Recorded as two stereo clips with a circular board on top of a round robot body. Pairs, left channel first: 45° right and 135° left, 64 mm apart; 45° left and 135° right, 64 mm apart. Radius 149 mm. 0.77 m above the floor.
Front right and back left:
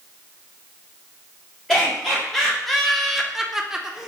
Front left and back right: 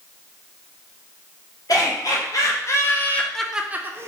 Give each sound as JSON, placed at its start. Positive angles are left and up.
{"t": 1.7, "sound": "laughter", "azimuth_deg": 40, "distance_m": 1.4}